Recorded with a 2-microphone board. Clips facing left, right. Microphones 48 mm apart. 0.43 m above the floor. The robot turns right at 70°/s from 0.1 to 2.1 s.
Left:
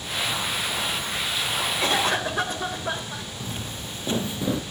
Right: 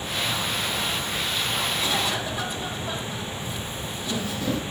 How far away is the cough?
About 1.5 m.